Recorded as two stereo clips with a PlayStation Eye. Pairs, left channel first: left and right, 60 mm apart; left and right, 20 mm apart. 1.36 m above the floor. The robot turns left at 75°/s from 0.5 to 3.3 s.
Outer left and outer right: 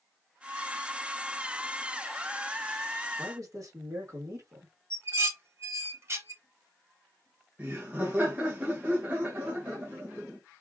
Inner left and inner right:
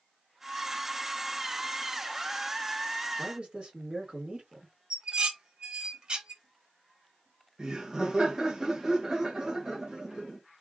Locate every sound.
3.2 s a man speaking: 55° right (ahead or behind), 2.0 m; by 4.7 s 65° right (ahead or behind), 2.0 m
4.9 s dishes clattering: 45° right (ahead or behind), 1.1 m
7.6 s laughter: 25° right (ahead or behind), 1.6 m